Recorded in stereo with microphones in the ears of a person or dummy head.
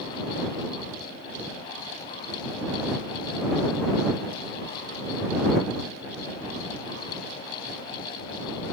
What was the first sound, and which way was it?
Only background noise.